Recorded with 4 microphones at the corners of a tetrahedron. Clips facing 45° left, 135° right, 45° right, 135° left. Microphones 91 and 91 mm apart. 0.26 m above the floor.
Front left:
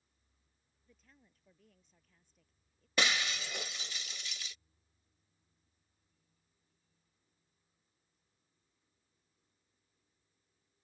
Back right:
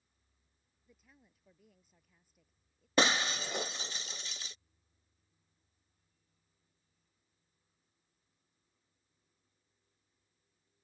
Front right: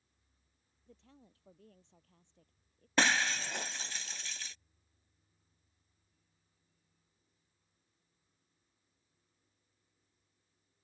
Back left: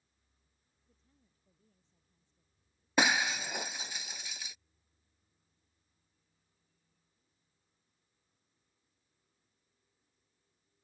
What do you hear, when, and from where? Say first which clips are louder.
0.9 s a woman speaking: back right 1 dB, front right 14 dB; 50° right
3.0 s breaking glass: back right 4 dB, back left 1 dB; 155° right